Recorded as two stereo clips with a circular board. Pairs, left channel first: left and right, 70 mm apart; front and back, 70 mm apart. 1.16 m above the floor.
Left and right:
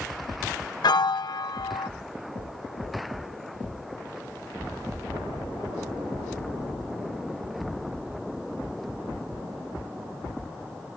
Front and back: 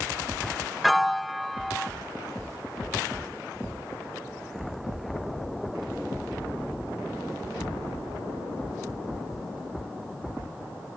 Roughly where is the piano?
Left.